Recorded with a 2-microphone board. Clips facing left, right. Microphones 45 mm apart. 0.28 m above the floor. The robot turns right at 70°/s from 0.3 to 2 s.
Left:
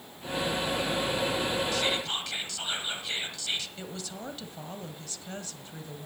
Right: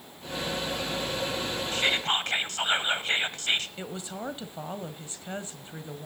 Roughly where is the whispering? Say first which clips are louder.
Right 3 dB; right.